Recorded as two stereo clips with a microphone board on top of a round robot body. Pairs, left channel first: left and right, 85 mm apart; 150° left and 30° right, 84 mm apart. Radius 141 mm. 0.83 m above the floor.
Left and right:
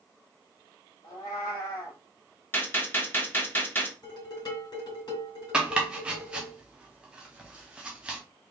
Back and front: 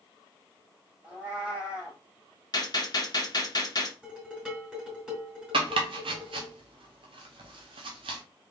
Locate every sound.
1.0 s a cat meowing: 45° left, 2.5 m
2.5 s a gunshot: 150° left, 1.3 m
4.0 s dishes clattering: 50° left, 2.5 m
5.5 s chopping: 10° right, 0.6 m